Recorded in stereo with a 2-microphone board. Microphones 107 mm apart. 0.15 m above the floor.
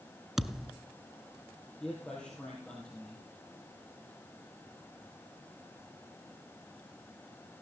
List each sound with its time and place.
0.4 s a thud: 5° right (ahead or behind), 0.6 m
1.8 s a man speaking: 10° left (ahead or behind), 3.5 m